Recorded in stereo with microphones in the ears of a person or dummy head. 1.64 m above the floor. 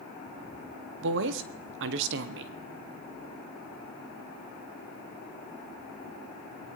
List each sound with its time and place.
1.0 s a woman speaking: 70° right (ahead or behind), 0.9 m